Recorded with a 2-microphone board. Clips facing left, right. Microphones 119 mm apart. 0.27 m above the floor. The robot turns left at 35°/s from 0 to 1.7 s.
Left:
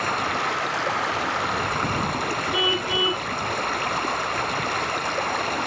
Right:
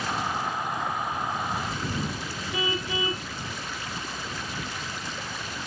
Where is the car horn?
20° left (ahead or behind).